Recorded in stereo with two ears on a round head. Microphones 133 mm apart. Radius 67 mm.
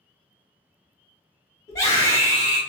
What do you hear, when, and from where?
1.7 s a scream: 25° left (ahead or behind), 1.4 m